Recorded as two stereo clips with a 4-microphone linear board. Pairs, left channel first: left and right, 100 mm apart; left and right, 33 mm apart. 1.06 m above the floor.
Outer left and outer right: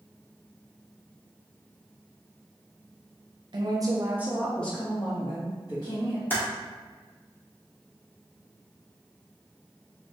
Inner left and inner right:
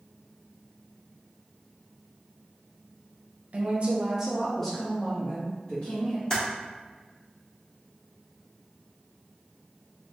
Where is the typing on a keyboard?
20° left (ahead or behind), 1.2 m.